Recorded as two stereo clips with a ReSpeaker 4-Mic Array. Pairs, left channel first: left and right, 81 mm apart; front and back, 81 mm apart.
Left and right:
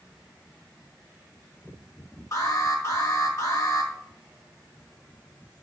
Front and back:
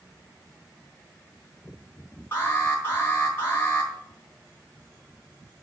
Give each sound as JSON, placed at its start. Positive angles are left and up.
{"t": 2.3, "sound": "an alarm", "azimuth_deg": 55, "distance_m": 3.5}